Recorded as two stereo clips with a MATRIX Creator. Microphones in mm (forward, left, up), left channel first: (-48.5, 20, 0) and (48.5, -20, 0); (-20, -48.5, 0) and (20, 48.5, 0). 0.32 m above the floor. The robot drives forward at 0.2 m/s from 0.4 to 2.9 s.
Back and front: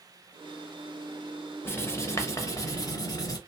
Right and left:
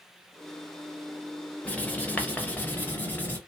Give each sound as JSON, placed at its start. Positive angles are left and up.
{"t": 1.6, "sound": "writing", "azimuth_deg": -170, "distance_m": 0.6}